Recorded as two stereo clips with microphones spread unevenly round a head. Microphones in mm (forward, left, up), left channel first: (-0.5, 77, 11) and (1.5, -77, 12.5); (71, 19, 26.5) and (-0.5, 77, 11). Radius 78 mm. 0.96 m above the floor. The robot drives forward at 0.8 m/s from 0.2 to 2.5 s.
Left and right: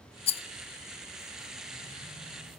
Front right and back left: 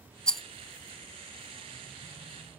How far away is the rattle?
About 0.6 m.